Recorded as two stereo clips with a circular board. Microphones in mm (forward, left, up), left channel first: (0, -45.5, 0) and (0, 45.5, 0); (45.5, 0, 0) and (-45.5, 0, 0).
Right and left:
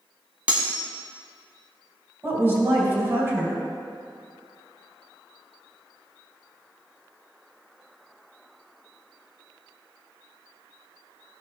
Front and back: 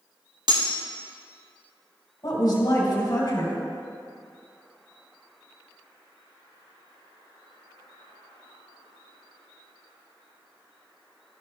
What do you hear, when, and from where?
0.5 s cutlery clinking: 160° left, 1.1 m
2.2 s a woman speaking: 30° left, 2 m